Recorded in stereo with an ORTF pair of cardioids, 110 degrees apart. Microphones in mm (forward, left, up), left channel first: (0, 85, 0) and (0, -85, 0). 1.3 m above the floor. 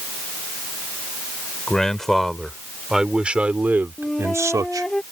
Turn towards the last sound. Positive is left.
turn(degrees=5)